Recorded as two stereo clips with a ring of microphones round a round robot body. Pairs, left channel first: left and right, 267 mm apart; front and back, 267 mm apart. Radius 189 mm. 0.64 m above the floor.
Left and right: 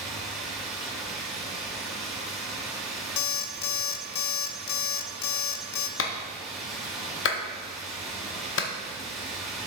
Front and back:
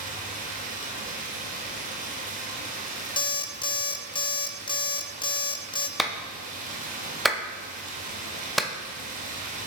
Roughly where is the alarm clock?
Left.